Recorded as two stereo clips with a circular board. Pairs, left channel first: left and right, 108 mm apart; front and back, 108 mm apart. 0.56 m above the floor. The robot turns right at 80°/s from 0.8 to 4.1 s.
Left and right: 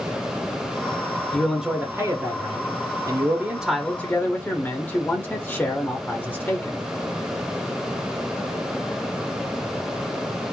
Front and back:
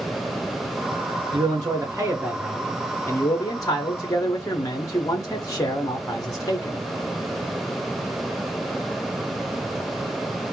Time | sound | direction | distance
1.3 | a man speaking | 165° left | 0.8 m